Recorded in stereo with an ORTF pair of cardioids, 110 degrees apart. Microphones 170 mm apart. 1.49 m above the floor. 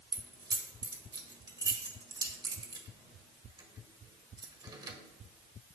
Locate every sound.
0.1 s keys jangling: 25° right, 1.4 m